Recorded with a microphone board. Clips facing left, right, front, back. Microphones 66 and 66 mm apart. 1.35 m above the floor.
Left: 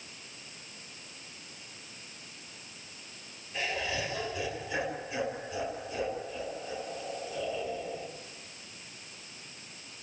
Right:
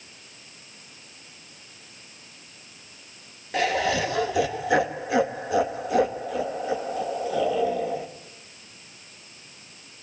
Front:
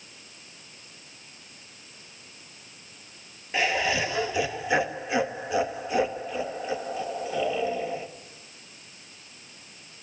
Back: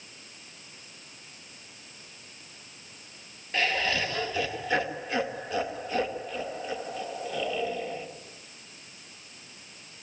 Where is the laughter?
75° right, 2 m.